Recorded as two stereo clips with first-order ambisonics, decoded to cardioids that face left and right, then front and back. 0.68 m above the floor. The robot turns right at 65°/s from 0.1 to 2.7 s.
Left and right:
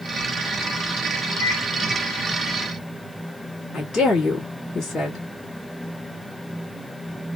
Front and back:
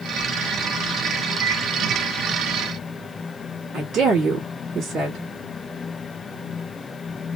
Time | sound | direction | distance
1.4 | a microwave | 110° right | 1.4 m
3.7 | a woman speaking | 150° left | 1.4 m